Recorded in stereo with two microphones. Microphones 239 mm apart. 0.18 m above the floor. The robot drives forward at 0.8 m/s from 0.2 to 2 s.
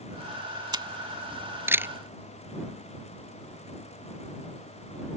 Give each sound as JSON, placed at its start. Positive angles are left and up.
{"t": 0.7, "sound": "a camera shutter", "side_deg": -20}